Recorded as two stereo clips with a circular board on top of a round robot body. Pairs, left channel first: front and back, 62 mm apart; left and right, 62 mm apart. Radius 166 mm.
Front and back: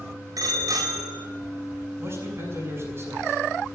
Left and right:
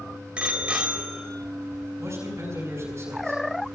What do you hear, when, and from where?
0.4 s a bicycle bell: 160° right, 2.5 m
2.0 s a man speaking: 135° right, 6.5 m